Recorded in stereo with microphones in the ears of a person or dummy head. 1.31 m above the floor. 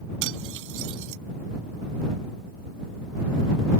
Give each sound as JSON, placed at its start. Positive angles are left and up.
{"t": 0.2, "sound": "cutlery clinking", "side_deg": -65}